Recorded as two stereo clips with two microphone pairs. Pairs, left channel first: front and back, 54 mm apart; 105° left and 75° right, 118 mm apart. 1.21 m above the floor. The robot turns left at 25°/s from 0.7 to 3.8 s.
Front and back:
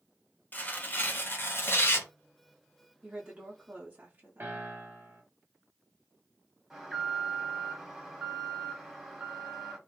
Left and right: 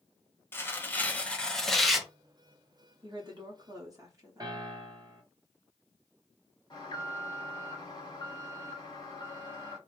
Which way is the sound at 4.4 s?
130° right.